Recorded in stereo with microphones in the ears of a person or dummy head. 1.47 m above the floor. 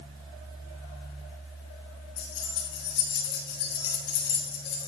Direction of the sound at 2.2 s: 55° left (ahead or behind).